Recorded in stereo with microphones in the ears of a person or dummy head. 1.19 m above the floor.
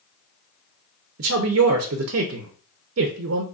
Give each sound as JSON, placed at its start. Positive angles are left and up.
{"t": 1.2, "sound": "a woman speaking", "side_deg": -70, "distance_m": 0.5}